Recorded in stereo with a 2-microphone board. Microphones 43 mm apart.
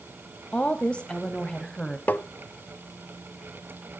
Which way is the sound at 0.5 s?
30° left (ahead or behind).